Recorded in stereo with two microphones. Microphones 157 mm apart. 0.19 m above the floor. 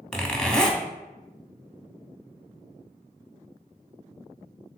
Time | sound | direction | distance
0.1 | a zipper | 5° left (ahead or behind) | 0.6 m